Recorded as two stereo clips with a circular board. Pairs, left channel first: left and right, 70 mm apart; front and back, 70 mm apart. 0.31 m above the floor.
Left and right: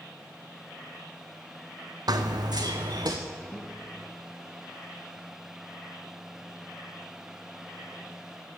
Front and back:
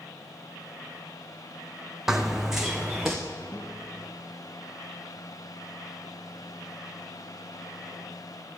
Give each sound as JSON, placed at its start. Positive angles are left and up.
{"t": 2.1, "sound": "running footsteps", "azimuth_deg": -95, "distance_m": 0.8}
{"t": 3.5, "sound": "a guitar", "azimuth_deg": 55, "distance_m": 2.5}